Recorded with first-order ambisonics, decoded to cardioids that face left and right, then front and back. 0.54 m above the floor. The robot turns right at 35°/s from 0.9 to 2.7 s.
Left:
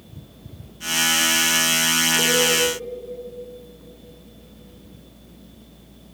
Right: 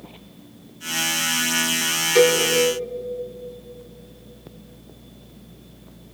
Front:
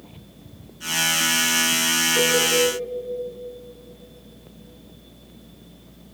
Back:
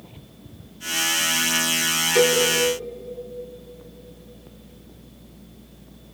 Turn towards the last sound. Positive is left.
turn(degrees=-100)